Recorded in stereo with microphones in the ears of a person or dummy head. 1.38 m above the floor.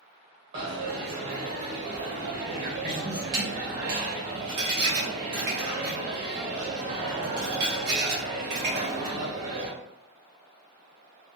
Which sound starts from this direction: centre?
A dropped coin, at 0.5 s.